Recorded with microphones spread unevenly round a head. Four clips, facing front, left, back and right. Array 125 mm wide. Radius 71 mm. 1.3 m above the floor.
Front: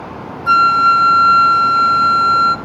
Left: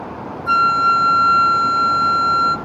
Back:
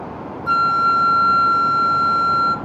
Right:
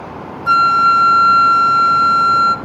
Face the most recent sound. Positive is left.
turn(degrees=-45)